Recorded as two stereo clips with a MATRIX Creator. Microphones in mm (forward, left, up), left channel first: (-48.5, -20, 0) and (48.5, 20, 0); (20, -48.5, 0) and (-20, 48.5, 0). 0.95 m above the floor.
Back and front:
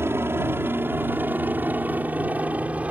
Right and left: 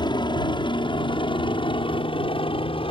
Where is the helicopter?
40° right; by 2.9 s 55° right.